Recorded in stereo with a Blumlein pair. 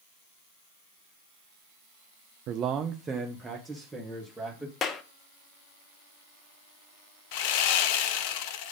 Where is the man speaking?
40° right, 0.5 m; by 4.7 s 5° right, 2.0 m.